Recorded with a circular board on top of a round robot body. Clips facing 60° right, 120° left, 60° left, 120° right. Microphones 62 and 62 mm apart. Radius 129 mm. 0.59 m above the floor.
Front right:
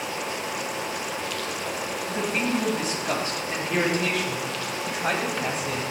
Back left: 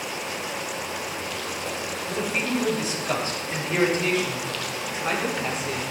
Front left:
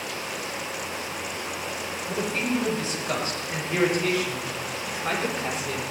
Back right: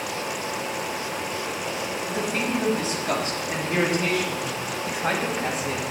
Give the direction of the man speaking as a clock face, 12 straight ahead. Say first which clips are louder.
Even, front left 1 dB; 3 o'clock.